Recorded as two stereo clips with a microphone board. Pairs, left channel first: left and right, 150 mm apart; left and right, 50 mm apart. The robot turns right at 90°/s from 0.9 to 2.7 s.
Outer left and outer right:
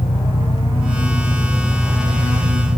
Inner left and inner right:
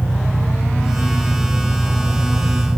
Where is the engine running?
115° left; by 2.8 s 80° right.